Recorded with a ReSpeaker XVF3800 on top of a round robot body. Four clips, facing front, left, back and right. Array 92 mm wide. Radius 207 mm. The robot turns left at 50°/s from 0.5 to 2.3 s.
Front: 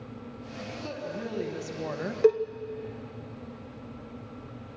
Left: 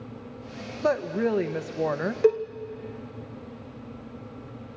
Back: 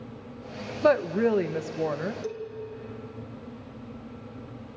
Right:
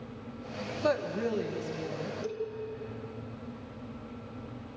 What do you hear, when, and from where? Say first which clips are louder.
0.8 s a woman speaking: left 5 dB, back 16 dB; 165° left, 1.1 m; by 2.1 s 100° left, 1.1 m
2.2 s a cowbell: left 17 dB, front 13 dB; 50° left, 0.5 m; by 2.4 s 45° left, 0.5 m